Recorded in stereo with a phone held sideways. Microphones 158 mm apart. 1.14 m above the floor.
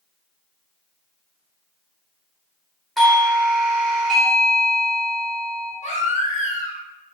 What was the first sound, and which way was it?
A doorbell, centre (ahead or behind).